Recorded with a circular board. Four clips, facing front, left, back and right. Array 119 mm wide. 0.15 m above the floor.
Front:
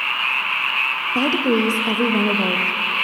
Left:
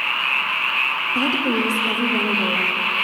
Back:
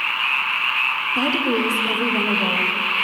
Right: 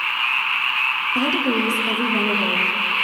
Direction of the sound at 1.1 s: Straight ahead.